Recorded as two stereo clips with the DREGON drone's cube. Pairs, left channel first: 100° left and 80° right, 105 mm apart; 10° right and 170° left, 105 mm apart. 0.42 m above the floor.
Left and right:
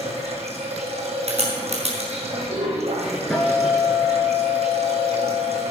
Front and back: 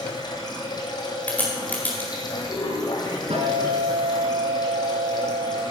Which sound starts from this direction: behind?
A guitar, at 3.3 s.